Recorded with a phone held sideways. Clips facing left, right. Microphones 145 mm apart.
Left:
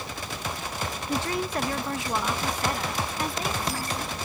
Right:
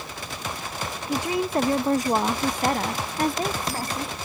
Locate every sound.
1.1 s a woman speaking: 5° right (ahead or behind); by 4.2 s 40° right (ahead or behind)